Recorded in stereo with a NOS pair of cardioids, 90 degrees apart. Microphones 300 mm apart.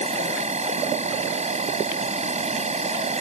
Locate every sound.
0.0 s an insect: 25° right